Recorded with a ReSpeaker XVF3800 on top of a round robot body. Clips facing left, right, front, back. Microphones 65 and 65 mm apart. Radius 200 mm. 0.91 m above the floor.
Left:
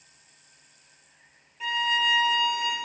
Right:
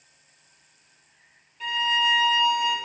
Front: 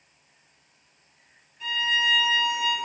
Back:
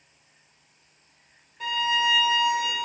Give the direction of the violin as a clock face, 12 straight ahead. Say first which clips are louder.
Right 1 dB, back 1 dB; 6 o'clock.